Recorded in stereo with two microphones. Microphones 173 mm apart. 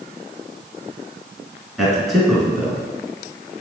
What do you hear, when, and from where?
1.8 s a man speaking: centre (ahead or behind), 1.7 m